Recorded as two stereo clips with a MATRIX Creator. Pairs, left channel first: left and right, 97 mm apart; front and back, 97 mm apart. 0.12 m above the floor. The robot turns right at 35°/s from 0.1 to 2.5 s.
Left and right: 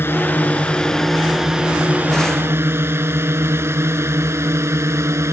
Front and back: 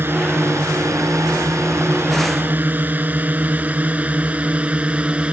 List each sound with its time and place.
0.0 s a drone: 135° left; by 5.3 s 115° right